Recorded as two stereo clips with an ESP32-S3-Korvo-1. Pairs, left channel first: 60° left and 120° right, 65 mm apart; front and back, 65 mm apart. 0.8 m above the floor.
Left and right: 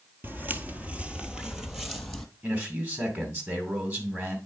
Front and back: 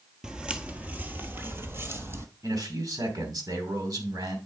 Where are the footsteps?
115° right, 0.9 m; by 2.3 s 150° left, 1.2 m.